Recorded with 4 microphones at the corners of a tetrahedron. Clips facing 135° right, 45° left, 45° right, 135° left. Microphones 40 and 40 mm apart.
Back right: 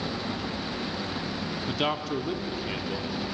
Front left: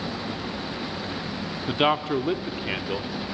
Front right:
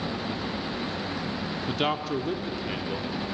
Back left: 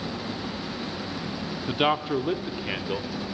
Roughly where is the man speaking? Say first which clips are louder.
Front left 7 dB, back left 4 dB; left.